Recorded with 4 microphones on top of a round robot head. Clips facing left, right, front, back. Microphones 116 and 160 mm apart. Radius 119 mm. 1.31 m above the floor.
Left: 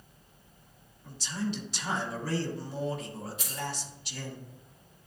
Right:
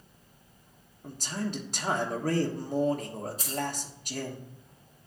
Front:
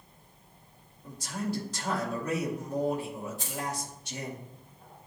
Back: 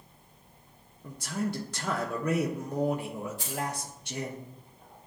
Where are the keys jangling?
140° right, 2.5 m.